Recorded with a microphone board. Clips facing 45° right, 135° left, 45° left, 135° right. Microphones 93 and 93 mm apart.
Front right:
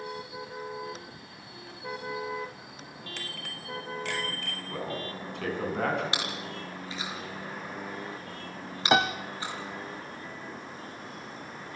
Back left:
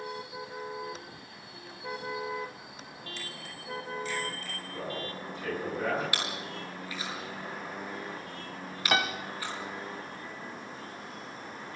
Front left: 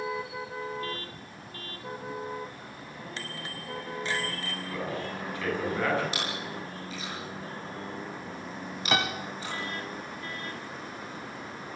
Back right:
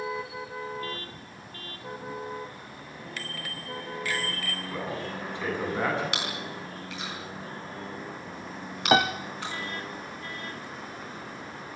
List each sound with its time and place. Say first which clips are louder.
3.2 s a bicycle bell: front right 2 dB, back right 1 dB; 20° right, 2.5 m
4.7 s a man speaking: front right 2 dB, even; 65° right, 8.5 m
6.1 s chewing: front right 1 dB, even; 110° right, 8 m
8.9 s a piano: front right 5 dB, back right 7 dB; 100° right, 0.8 m